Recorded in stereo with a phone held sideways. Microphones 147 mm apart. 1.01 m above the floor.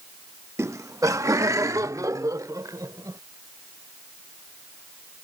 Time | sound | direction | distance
0.6 | laughter | 20° right (ahead or behind) | ?